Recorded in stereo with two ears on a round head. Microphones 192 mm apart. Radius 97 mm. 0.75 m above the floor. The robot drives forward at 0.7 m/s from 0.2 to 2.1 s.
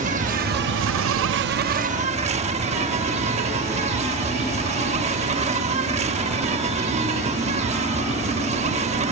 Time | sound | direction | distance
0.0 | an insect | 35° right (ahead or behind) | ?